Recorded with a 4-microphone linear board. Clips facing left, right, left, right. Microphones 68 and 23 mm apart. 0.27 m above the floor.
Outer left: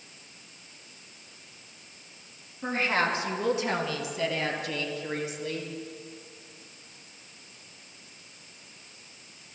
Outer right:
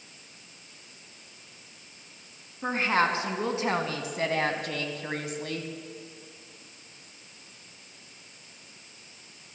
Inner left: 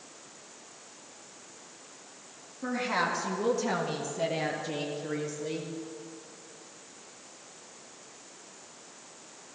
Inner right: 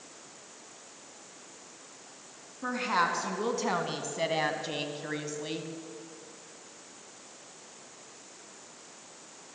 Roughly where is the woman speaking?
Right.